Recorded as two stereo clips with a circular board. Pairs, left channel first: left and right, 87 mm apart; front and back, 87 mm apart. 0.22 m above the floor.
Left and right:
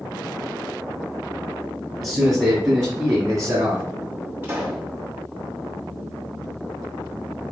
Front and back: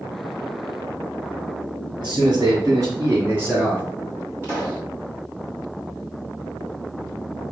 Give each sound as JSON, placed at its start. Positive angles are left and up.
{"t": 2.0, "sound": "a man speaking", "azimuth_deg": -170, "distance_m": 1.7}
{"t": 4.4, "sound": "a pop", "azimuth_deg": -140, "distance_m": 2.0}